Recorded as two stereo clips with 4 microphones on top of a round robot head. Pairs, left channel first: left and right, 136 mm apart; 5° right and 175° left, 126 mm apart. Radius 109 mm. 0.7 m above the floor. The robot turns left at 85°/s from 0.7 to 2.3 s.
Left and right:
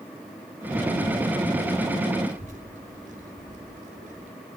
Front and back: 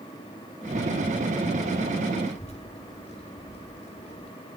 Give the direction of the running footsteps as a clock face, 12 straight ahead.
No running footsteps in this recording.